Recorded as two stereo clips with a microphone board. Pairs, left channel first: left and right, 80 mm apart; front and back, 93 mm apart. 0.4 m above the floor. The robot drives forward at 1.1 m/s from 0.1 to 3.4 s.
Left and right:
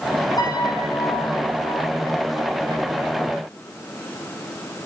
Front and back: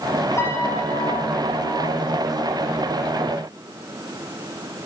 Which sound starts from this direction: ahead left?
A piano, at 0.4 s.